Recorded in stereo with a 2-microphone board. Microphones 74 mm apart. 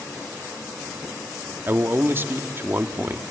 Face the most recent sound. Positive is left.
turn(degrees=-30)  # may be behind; listen again after turning